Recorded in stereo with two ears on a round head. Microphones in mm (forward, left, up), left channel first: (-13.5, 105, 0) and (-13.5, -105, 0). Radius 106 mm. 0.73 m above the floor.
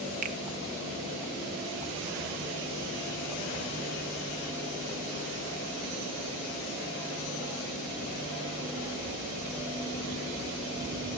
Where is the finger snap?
35° right (ahead or behind), 0.8 m.